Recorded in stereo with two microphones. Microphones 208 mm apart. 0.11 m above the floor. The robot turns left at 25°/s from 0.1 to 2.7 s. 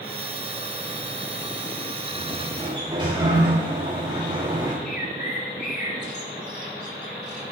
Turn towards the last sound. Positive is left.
turn(degrees=60)  # may be behind; listen again after turning